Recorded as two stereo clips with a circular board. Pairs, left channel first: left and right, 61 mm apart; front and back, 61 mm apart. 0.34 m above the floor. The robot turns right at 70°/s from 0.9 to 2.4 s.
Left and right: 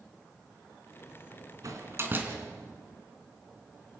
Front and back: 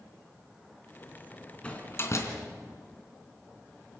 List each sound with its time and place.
1.6 s a door slam: 70° right, 3 m; by 2.3 s 25° right, 3 m